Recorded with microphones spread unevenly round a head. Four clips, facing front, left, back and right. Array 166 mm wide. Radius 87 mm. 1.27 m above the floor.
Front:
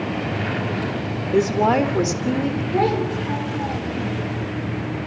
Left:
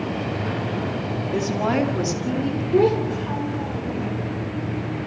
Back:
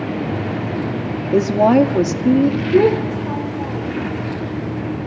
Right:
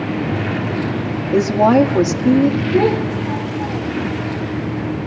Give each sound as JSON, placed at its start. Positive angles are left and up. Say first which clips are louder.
{"t": 1.3, "sound": "a woman speaking", "louder": "right 10 dB, back 5 dB", "azimuth_deg": -160, "distance_m": 2.0}
{"t": 2.7, "sound": "a child speaking", "louder": "right 3 dB, back 5 dB", "azimuth_deg": 160, "distance_m": 3.0}